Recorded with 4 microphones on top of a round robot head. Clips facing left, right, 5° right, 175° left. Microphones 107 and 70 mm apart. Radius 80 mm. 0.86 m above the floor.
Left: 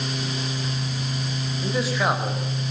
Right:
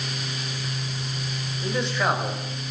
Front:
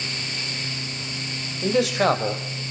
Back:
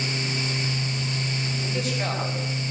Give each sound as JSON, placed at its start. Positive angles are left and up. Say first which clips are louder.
{"t": 1.6, "sound": "a man speaking", "louder": "left 1 dB, front 12 dB", "azimuth_deg": 5, "distance_m": 4.5}